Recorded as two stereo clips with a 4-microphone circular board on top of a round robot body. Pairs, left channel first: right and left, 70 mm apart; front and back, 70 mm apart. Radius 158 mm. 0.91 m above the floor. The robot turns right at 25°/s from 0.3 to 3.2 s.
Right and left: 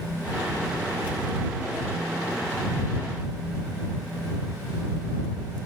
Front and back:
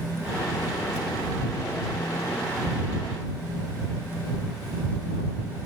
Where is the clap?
No clap in this recording.